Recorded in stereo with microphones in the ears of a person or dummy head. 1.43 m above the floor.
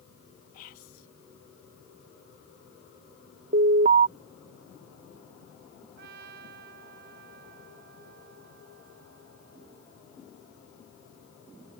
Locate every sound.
0.5 s whispering: 50° left (ahead or behind)
3.5 s an alarm: 50° right (ahead or behind)
6.0 s a trumpet: 65° right (ahead or behind)